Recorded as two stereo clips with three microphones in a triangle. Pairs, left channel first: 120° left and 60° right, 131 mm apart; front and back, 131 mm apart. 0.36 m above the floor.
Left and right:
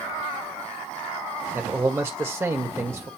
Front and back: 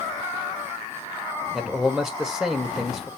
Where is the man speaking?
100° right, 1.4 m.